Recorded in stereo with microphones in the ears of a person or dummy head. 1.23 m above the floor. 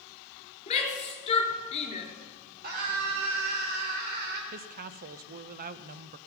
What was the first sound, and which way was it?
A shout, 25° left (ahead or behind).